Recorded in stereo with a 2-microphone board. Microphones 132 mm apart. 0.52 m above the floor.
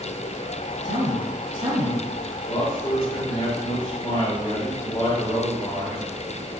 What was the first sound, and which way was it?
A man speaking, 40° right (ahead or behind).